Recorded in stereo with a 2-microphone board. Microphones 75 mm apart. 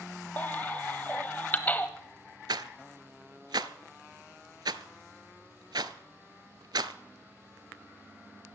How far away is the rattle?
About 0.7 m.